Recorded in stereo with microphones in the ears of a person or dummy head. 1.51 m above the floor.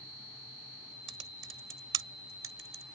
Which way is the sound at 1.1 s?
20° right (ahead or behind).